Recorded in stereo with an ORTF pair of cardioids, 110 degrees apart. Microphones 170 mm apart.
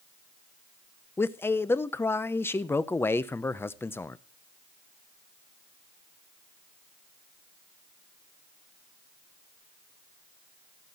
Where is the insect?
I don't hear an insect.